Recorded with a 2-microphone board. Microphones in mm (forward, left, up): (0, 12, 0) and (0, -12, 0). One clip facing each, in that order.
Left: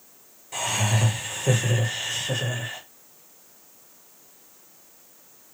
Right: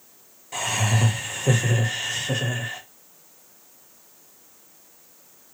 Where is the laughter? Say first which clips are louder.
Right 1 dB; 5° right (ahead or behind), 0.9 m.